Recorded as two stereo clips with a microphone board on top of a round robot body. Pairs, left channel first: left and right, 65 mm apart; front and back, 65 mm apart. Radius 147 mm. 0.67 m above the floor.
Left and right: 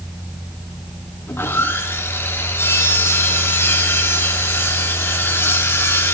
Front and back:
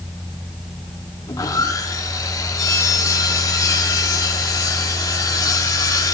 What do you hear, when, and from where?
1.3 s sawing: 35° left, 4.5 m